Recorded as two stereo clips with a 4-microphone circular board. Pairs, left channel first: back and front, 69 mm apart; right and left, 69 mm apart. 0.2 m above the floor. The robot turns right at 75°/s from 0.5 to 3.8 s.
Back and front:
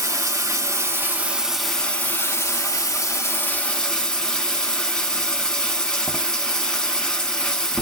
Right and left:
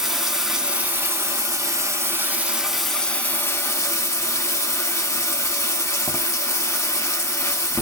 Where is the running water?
5° left, 0.8 m; by 7.8 s 105° right, 0.8 m.